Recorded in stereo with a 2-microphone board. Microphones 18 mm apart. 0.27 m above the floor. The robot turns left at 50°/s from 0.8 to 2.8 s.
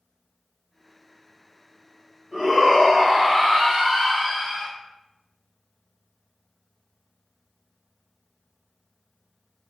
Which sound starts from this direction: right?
A shout, at 2.3 s.